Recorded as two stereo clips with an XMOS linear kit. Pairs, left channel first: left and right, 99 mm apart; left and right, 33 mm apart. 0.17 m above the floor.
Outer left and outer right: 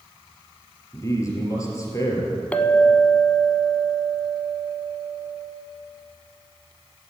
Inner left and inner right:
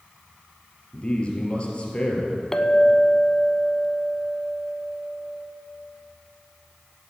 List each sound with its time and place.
0.9 s a man speaking: 35° left (ahead or behind), 2.5 m
2.5 s a clink: 15° left (ahead or behind), 0.6 m